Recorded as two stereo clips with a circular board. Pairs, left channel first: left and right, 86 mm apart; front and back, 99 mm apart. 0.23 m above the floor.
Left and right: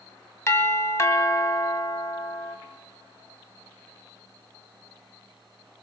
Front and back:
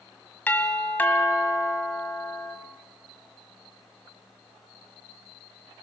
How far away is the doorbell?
About 1.8 m.